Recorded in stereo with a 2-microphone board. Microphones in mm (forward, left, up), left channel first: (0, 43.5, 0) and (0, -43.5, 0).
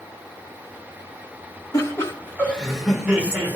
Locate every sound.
1.7 s laughter: 35° left (ahead or behind), 1.7 m; by 3.6 s 25° right (ahead or behind), 1.7 m